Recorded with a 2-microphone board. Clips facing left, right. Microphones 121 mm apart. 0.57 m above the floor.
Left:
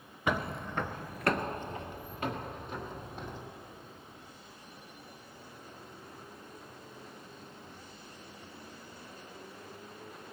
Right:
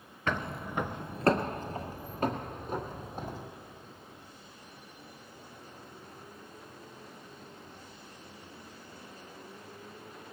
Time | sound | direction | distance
0.3 | footsteps | 15° left (ahead or behind) | 0.5 m